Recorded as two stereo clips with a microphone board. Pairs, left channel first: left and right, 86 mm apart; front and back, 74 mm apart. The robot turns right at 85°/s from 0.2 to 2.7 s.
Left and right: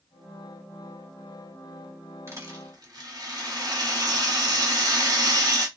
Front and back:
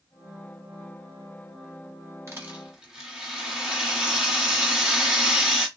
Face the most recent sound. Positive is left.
turn(degrees=-105)